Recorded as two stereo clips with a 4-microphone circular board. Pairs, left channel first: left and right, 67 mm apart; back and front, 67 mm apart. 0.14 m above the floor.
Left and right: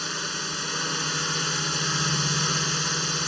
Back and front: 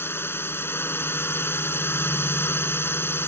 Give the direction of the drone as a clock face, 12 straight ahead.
6 o'clock.